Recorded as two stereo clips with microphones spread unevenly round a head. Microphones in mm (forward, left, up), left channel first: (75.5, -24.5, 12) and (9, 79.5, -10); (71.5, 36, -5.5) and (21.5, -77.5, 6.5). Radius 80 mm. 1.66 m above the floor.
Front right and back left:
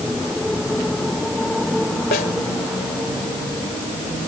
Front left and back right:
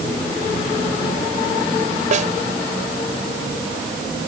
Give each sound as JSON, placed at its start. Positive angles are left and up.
{"t": 2.1, "sound": "a snare drum", "azimuth_deg": -90}